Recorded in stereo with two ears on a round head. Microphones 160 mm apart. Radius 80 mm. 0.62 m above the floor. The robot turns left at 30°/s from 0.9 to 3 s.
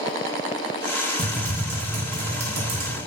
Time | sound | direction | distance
1.2 | typing on a keyboard | 40° right | 0.7 m